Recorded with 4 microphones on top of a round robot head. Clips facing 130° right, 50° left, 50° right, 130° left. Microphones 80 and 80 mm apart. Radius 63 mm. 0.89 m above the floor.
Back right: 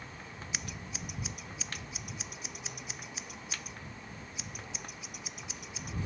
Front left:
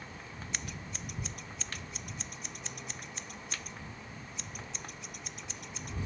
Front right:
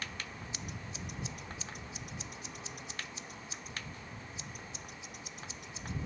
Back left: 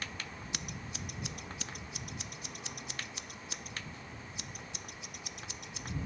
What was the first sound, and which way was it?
Scissors, 145° left.